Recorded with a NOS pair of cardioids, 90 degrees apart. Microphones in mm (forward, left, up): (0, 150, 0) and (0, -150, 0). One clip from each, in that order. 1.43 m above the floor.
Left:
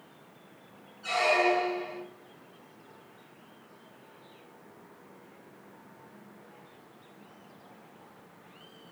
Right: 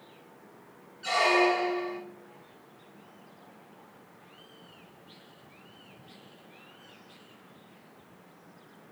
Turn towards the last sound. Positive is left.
turn(degrees=-65)